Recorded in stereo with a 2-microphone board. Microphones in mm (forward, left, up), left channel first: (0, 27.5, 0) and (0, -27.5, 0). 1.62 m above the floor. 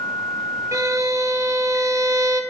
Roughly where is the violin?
Right.